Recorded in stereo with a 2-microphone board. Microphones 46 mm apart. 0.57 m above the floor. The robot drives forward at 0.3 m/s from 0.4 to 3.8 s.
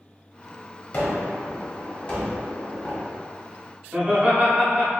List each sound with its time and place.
0.9 s a gunshot: 25° left (ahead or behind), 1.0 m; by 3.2 s 20° left (ahead or behind), 1.4 m
3.9 s laughter: 35° right (ahead or behind), 0.7 m